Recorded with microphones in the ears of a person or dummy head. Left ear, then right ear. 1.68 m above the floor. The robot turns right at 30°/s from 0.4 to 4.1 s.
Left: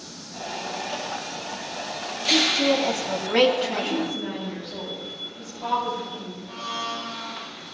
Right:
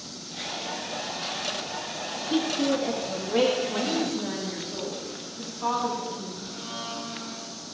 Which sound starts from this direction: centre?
A woman speaking, at 3.7 s.